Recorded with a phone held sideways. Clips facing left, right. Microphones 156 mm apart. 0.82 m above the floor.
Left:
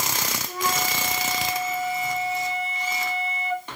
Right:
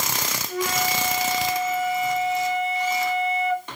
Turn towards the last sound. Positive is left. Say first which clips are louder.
# right 3 dB
turn(degrees=35)  # may be behind; listen again after turning